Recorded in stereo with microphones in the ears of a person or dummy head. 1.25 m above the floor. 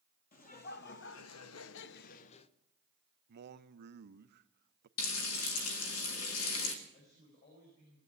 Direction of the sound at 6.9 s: 50° left (ahead or behind).